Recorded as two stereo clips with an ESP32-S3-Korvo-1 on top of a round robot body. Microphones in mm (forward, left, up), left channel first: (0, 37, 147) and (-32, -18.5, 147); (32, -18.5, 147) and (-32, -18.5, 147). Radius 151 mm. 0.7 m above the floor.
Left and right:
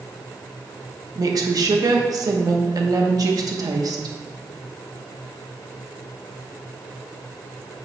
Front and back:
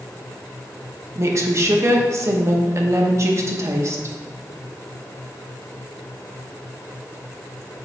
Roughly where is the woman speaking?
Behind right.